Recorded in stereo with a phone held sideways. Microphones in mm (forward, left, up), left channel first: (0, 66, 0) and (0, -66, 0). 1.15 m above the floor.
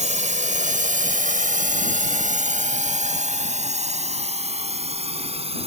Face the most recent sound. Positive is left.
turn(degrees=-50)  # may be behind; listen again after turning